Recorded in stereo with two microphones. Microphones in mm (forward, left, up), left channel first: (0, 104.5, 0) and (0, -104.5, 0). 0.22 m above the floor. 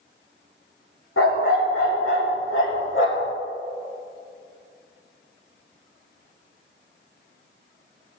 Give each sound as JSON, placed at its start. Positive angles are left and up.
{"t": 1.2, "sound": "a dog barking", "side_deg": 80, "distance_m": 2.5}